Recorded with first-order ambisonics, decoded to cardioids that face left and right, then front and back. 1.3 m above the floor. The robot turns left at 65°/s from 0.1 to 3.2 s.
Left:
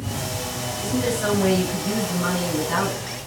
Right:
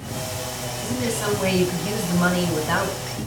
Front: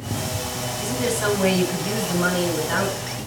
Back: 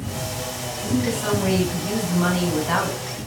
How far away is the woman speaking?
About 6 m.